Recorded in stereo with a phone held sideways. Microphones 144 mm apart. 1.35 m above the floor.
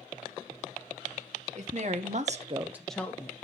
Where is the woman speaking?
50° right (ahead or behind), 1.5 m; by 3.3 s 20° left (ahead or behind), 1.1 m.